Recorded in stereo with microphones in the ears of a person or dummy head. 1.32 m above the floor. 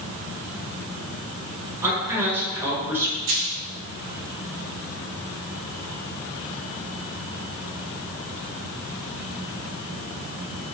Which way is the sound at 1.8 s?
10° right (ahead or behind).